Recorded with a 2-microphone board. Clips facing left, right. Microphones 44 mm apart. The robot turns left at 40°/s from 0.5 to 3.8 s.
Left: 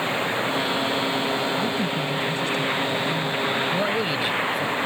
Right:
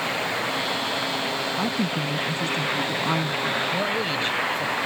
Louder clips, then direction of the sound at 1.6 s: Left 1 dB; 25° right.